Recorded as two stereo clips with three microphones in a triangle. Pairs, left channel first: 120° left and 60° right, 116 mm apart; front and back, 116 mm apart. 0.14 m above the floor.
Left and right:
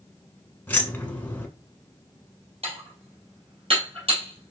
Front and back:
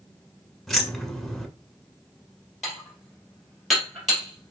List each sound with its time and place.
0.7 s keys jangling: 85° left, 1.1 m
2.6 s dishes clattering: 90° right, 2 m